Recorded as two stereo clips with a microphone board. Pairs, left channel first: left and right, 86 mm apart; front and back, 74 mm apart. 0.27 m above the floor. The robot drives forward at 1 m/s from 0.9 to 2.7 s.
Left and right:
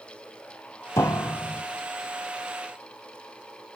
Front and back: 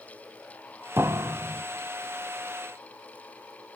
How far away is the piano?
About 0.8 m.